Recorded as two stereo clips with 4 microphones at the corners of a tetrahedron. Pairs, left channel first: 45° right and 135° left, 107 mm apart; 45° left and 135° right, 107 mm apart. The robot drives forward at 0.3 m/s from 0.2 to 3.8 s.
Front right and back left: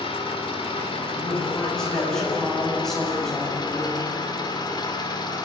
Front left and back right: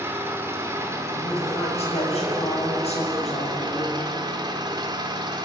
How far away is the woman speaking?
About 8.5 m.